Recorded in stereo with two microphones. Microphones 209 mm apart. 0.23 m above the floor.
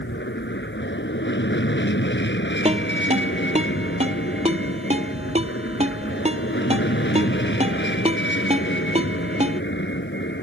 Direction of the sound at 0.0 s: 60° left (ahead or behind).